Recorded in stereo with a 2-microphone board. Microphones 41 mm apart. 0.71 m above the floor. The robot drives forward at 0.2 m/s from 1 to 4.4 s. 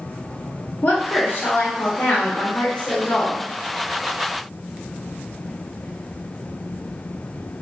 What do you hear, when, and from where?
0.8 s a woman speaking: 40° left (ahead or behind), 1.0 m; by 3.4 s 45° left (ahead or behind), 0.9 m